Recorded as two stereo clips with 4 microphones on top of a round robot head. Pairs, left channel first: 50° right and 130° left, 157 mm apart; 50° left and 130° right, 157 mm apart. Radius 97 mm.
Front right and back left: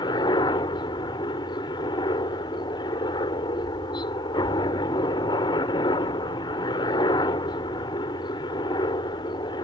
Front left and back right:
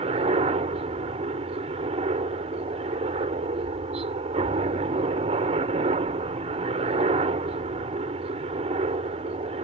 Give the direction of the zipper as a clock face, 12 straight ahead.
I don't hear a zipper.